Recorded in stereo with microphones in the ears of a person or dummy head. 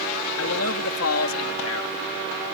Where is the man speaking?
80° left.